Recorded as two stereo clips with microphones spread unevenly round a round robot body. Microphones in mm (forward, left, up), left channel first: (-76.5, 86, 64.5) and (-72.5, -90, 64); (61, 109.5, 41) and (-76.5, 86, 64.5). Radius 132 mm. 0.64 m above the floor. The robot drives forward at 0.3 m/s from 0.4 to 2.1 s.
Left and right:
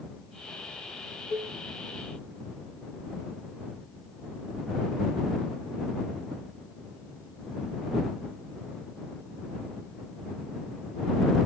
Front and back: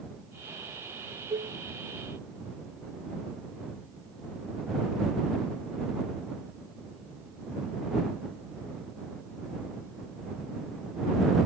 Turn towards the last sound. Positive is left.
turn(degrees=135)